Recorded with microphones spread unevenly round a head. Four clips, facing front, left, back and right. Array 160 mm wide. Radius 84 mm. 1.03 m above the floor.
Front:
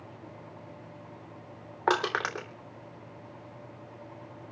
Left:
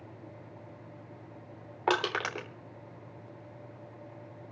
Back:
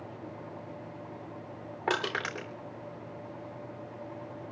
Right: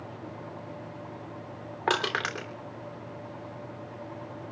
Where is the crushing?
Straight ahead, 3.5 m.